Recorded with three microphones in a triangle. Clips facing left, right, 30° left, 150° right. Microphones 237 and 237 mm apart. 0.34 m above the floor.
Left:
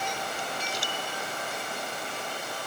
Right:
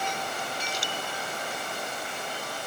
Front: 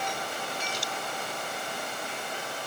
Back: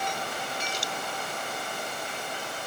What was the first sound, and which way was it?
Only background noise.